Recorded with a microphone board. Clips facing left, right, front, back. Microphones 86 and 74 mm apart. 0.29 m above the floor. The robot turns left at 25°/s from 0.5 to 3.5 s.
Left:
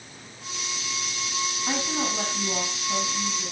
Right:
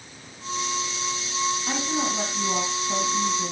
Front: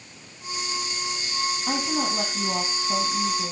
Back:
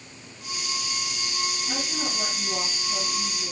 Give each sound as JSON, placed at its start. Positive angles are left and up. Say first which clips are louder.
{"t": 1.7, "sound": "a woman speaking", "louder": "right 1 dB, front 6 dB", "azimuth_deg": 10, "distance_m": 2.5}